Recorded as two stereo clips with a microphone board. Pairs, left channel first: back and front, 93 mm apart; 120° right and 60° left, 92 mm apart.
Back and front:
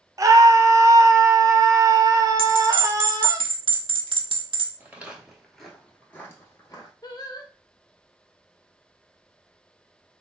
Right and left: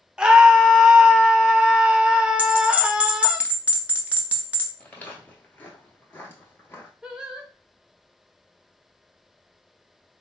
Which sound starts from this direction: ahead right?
Footsteps, at 4.8 s.